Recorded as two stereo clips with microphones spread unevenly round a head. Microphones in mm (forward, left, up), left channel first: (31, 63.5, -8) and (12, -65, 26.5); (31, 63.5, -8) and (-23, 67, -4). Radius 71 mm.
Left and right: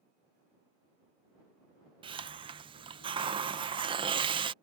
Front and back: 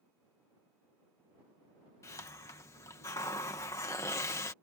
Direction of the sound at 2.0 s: 40° right.